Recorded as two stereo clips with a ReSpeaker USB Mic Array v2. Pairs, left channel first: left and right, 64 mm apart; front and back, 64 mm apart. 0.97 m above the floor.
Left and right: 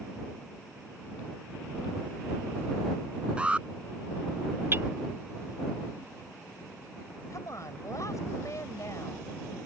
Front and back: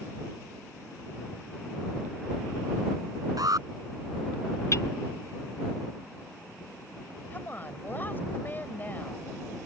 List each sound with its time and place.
3.4 s an alarm: 160° right
4.7 s hammering: 40° right
7.3 s a woman speaking: 60° left